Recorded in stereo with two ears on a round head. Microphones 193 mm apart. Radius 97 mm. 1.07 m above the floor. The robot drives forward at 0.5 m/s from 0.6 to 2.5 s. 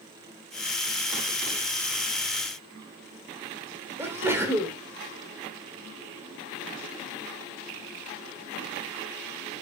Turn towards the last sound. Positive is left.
turn(degrees=-10)  # may be behind; listen again after turning